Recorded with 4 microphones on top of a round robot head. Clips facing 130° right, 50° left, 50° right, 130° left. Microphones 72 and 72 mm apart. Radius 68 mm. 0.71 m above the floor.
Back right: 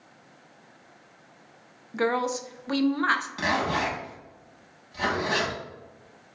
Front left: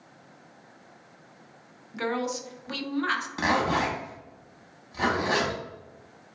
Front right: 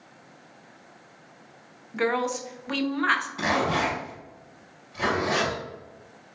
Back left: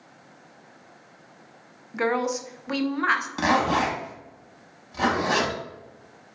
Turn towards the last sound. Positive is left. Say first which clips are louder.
# front left 1 dB, back left 3 dB
turn(degrees=115)